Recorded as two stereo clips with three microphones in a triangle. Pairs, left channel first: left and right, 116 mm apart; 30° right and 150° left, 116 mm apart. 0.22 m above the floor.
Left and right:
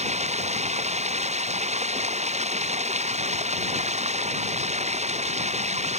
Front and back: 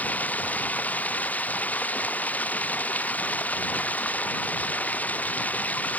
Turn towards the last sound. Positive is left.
turn(degrees=-105)